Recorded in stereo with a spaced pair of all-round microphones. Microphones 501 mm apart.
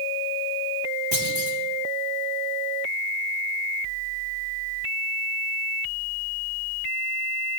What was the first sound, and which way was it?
A clunk, 60° right (ahead or behind).